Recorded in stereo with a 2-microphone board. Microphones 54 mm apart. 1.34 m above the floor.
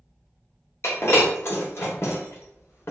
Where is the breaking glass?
55° left (ahead or behind), 1.0 m.